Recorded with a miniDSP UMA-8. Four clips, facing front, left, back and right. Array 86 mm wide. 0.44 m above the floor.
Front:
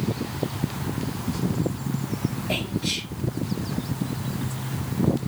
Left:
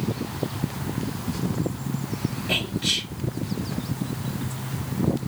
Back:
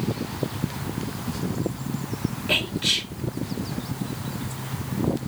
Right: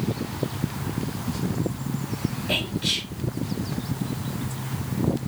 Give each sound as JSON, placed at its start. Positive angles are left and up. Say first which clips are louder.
{"t": 2.5, "sound": "whispering", "louder": "even, even", "azimuth_deg": 180, "distance_m": 5.0}